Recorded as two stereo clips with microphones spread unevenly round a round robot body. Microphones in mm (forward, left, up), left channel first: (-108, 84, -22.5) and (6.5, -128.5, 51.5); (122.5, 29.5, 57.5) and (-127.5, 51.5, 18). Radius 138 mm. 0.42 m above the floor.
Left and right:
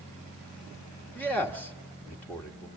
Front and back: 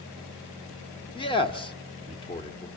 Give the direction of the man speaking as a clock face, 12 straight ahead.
10 o'clock.